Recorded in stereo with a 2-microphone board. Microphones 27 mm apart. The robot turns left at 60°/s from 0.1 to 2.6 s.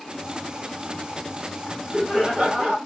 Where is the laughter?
15° left, 2.5 m; by 2.8 s 45° right, 2.5 m.